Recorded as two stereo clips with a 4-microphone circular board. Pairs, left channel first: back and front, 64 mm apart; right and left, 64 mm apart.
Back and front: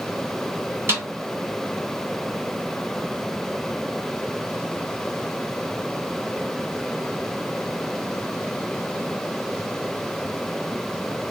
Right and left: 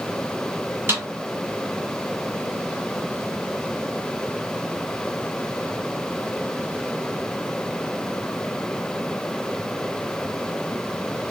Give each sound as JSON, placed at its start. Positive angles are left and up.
{"t": 0.9, "sound": "a snare drum", "azimuth_deg": 45, "distance_m": 2.5}